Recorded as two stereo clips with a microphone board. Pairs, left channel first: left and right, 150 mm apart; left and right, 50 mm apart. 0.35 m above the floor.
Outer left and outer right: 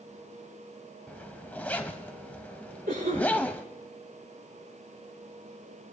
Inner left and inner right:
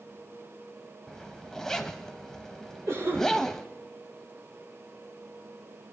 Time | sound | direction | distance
1.1 | a zipper | 10° left (ahead or behind) | 0.7 m
2.9 | a cough | 65° right (ahead or behind) | 6 m